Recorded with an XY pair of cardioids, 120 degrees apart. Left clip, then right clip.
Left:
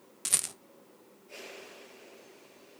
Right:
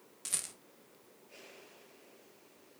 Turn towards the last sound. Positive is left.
turn(degrees=45)